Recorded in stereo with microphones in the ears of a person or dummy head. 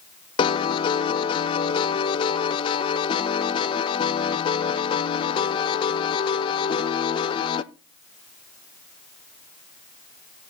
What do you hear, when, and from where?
0.4 s a piano: 35° left (ahead or behind), 0.6 m